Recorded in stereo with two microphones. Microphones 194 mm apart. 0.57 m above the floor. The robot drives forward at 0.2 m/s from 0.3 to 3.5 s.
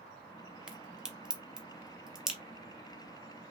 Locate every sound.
0.7 s a crack: 5° right (ahead or behind), 0.7 m